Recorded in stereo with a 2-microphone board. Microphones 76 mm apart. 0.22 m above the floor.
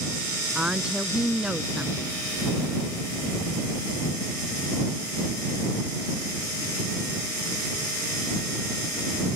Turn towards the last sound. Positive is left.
turn(degrees=-15)  # may be behind; listen again after turning